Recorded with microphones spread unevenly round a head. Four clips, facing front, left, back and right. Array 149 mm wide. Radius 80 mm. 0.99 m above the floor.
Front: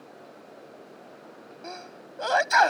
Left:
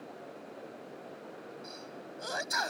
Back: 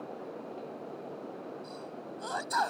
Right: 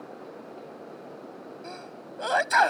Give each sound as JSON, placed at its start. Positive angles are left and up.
{"t": 1.6, "sound": "a sneeze", "azimuth_deg": -35}